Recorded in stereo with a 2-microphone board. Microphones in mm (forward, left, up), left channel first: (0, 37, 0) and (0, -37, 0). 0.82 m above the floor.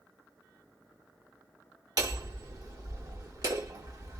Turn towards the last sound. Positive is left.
turn(degrees=-55)  # may be behind; listen again after turning